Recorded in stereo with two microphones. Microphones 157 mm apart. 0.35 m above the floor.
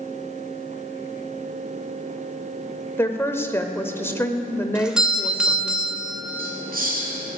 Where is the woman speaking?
15° left (ahead or behind), 0.8 m.